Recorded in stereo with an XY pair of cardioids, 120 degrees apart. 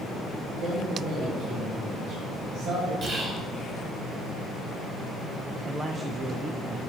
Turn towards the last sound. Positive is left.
turn(degrees=-20)